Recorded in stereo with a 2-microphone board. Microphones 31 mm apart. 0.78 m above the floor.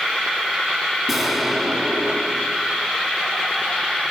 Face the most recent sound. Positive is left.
turn(degrees=0)  # may be behind; listen again after turning